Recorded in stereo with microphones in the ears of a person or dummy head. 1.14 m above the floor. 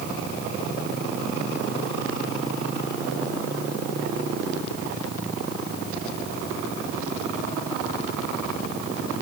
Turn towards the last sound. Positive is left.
No sound to turn to.